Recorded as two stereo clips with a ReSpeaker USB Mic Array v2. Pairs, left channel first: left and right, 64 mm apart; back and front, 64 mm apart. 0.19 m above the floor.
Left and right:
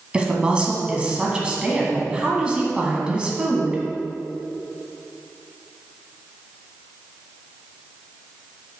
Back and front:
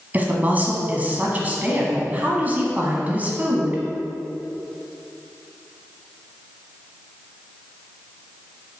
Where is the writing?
No writing in this recording.